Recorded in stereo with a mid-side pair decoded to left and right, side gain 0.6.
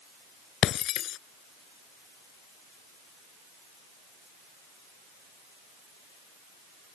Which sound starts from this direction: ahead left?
Breaking glass, at 0.6 s.